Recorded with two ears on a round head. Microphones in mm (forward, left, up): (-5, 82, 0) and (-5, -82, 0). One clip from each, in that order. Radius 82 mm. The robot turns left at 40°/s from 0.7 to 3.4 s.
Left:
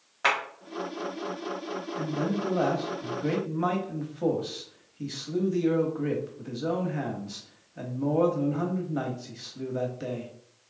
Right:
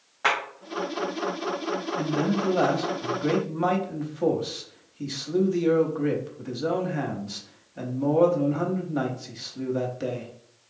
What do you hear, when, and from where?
0.2 s a clap: 25° left (ahead or behind), 2 m
2.0 s a man speaking: 110° right, 0.8 m; by 10.3 s 170° right, 0.8 m